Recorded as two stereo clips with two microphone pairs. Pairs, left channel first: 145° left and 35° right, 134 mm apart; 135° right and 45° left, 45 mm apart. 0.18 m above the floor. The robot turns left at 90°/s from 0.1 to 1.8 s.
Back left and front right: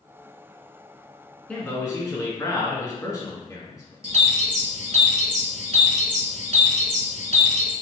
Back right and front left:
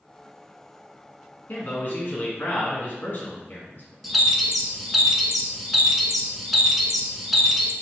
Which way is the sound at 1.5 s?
130° right.